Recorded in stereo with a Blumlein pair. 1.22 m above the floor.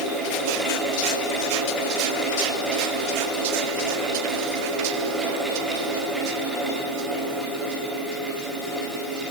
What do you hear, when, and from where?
0.0 s a fan: 10° right, 3.5 m